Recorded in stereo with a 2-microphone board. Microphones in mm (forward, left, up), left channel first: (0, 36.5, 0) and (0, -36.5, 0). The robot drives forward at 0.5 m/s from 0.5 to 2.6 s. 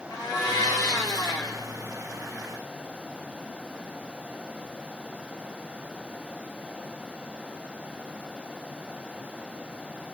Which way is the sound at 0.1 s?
70° left (ahead or behind).